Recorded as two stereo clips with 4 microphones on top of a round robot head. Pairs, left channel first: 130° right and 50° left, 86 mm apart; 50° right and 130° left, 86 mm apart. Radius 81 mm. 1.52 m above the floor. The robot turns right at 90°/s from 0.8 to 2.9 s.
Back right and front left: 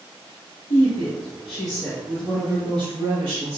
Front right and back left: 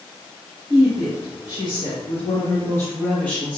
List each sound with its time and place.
0.7 s a woman speaking: 160° right, 0.8 m; by 3.6 s 30° left, 0.8 m